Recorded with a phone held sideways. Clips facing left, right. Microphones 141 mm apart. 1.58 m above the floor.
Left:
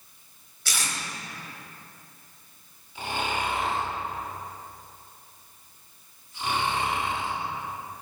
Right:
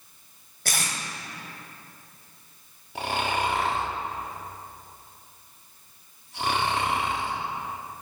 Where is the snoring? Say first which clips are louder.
Right 3 dB; 70° right (ahead or behind), 2 m.